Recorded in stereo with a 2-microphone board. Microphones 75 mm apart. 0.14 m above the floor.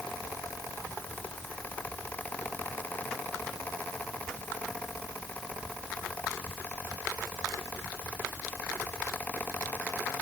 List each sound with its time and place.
Only background noise.